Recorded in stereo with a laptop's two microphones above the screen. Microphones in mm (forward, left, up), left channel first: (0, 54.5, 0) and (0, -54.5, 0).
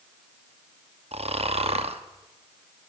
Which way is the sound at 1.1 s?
65° right (ahead or behind).